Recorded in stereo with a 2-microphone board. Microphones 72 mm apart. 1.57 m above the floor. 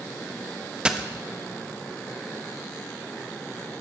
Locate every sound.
0.8 s a dropped coin: 15° right (ahead or behind), 0.9 m